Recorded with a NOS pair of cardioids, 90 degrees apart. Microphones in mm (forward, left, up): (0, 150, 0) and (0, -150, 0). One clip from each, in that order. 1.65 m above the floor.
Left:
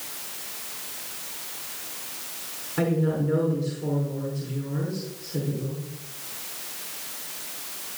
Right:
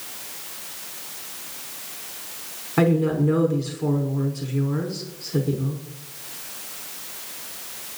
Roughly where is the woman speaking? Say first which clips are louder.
Right 5 dB; ahead right.